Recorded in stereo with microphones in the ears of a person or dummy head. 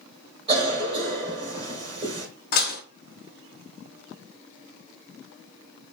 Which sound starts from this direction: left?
Dishes clattering, at 2.5 s.